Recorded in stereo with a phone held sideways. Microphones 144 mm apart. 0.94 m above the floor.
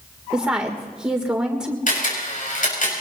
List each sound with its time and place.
0.3 s a woman speaking: 5° right (ahead or behind), 3 m
1.9 s a camera shutter: 65° left (ahead or behind), 5.5 m